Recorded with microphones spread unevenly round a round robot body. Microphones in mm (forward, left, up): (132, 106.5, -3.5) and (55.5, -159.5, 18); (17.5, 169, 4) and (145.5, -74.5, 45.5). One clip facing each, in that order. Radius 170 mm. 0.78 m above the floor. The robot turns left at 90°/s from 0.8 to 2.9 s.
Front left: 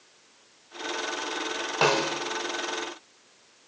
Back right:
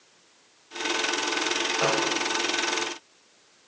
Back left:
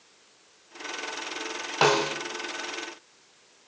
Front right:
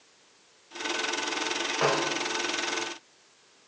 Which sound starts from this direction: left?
A snare drum, at 1.8 s.